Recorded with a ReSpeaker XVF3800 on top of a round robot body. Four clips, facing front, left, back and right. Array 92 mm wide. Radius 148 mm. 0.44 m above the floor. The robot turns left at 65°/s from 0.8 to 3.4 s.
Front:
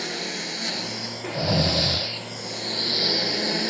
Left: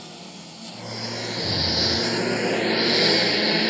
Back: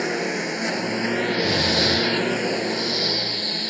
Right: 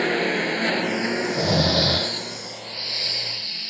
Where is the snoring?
40° right; by 2.1 s 100° right.